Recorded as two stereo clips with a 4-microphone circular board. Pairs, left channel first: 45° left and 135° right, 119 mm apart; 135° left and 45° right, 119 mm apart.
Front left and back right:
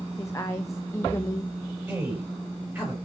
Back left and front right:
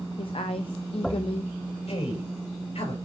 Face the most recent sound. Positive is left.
turn(degrees=145)